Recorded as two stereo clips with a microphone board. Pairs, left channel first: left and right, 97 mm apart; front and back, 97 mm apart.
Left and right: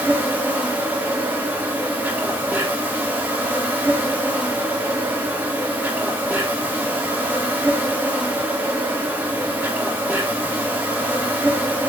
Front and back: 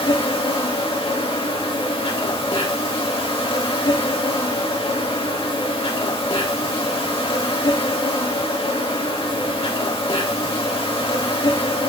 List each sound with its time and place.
0.0 s an insect: 20° right, 2 m